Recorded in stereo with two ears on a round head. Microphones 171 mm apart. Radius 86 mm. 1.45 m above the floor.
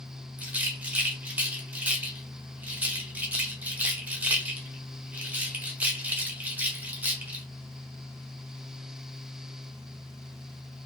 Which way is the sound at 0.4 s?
10° right (ahead or behind).